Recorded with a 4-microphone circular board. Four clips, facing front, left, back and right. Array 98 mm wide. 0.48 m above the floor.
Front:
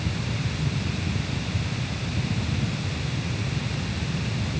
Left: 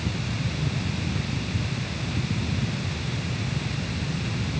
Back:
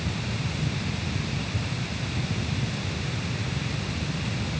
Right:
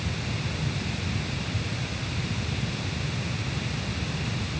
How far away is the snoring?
I don't hear snoring.